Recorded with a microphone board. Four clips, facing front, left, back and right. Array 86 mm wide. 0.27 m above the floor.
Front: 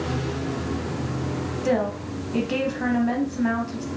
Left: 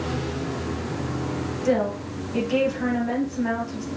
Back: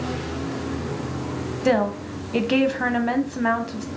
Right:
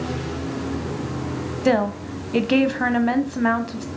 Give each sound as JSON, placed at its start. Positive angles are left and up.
{"t": 1.6, "sound": "a woman speaking", "azimuth_deg": -120, "distance_m": 1.4}